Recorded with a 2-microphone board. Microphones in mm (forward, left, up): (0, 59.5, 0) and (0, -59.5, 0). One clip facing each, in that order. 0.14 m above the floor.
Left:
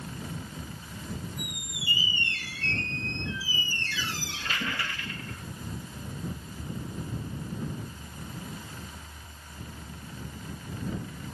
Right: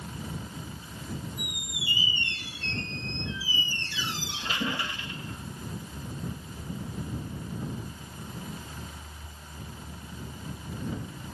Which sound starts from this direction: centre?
A squeak, at 1.4 s.